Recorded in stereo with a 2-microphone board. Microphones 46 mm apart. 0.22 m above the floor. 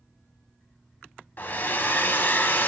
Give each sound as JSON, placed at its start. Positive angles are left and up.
{"t": 1.4, "sound": "a hair dryer", "side_deg": 40, "distance_m": 0.5}